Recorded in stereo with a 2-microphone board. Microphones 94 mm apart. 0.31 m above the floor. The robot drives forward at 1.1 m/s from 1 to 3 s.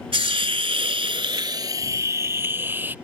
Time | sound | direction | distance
0.1 | a hiss | 80° right | ?